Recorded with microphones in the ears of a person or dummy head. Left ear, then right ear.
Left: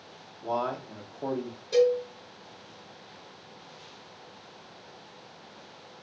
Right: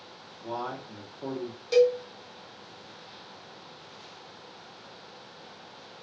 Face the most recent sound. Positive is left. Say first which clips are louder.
# right 1 dB
turn(degrees=-45)  # may be behind; listen again after turning